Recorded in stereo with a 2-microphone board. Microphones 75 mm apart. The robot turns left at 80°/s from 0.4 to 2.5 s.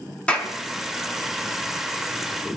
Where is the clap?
15° left (ahead or behind), 5.5 m; by 0.5 s 25° left (ahead or behind), 5.5 m.